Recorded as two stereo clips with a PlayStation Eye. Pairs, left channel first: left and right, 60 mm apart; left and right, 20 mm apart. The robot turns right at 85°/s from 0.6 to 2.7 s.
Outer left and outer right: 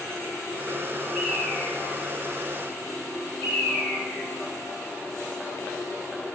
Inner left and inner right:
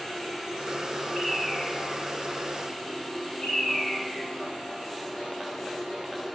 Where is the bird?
15° right (ahead or behind), 8.5 m; by 4.3 s 60° left (ahead or behind), 8.5 m.